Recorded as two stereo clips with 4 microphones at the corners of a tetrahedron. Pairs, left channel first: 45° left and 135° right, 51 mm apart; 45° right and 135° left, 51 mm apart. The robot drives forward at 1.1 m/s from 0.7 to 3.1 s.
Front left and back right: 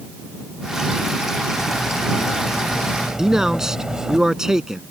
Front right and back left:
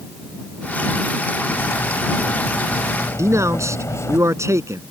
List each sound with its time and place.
1.5 s cutlery clinking: 40° right; by 4.2 s 55° right
3.2 s a man speaking: 145° left